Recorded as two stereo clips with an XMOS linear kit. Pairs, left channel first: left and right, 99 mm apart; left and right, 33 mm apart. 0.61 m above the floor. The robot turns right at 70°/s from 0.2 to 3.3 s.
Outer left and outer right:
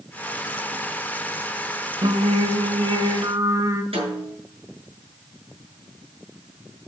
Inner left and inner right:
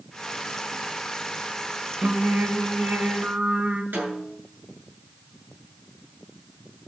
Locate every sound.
2.0 s singing: 125° right, 1.1 m; by 3.8 s 35° right, 1.1 m
3.9 s a snare drum: 75° right (ahead or behind), 8 m